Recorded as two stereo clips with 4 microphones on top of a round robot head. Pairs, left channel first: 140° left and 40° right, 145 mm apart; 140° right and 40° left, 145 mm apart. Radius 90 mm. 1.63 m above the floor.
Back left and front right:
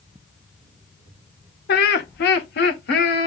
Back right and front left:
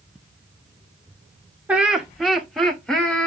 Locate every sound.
1.7 s laughter: 120° left, 0.8 m; by 3.3 s 135° left, 1.7 m